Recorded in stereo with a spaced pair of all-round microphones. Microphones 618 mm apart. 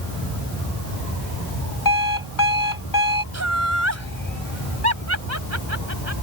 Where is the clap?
No clap in this recording.